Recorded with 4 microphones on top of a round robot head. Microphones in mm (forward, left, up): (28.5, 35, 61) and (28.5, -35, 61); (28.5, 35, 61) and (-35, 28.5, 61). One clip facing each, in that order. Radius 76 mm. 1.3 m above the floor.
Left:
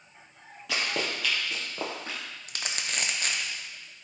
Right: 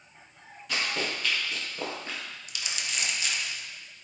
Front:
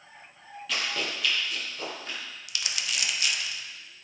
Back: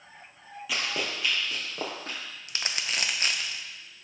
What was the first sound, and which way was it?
Running footsteps, 105° left.